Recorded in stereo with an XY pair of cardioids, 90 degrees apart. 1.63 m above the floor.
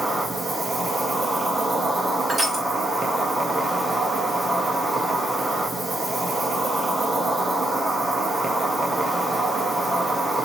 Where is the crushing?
25° right, 2.0 m.